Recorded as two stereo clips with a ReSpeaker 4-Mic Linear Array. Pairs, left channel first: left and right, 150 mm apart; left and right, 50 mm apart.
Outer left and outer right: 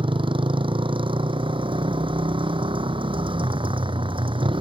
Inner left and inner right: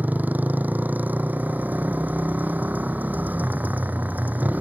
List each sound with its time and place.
0.0 s a motorcycle: 35° right (ahead or behind)